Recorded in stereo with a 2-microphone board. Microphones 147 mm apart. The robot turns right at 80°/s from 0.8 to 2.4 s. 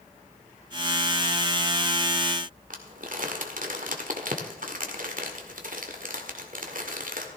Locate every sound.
2.7 s crumpling: 70° right (ahead or behind), 1.6 m